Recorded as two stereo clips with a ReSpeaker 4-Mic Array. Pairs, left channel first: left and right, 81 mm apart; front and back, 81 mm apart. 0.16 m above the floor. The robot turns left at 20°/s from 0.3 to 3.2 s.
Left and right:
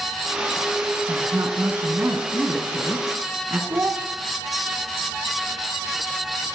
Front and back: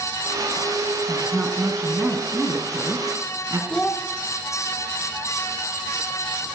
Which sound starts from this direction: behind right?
A woman speaking, at 1.1 s.